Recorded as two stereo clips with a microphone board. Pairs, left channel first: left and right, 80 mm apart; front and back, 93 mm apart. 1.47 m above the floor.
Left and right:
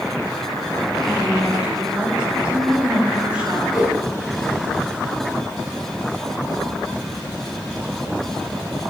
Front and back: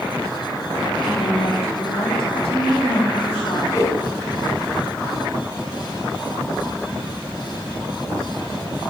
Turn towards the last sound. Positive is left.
turn(degrees=50)